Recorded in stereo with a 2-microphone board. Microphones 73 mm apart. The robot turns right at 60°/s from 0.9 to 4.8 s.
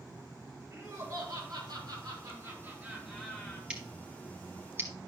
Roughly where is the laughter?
Behind right.